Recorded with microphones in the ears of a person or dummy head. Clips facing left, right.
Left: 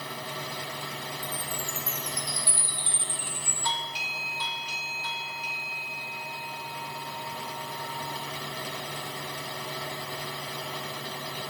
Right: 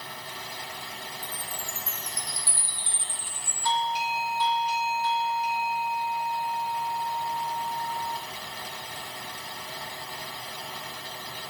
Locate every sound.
1.2 s a chime: 20° left (ahead or behind), 7 m
3.6 s a doorbell: 60° left (ahead or behind), 1.1 m